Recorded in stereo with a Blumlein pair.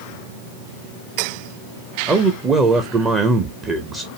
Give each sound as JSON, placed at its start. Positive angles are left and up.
{"t": 2.1, "sound": "a man speaking", "azimuth_deg": -20, "distance_m": 0.8}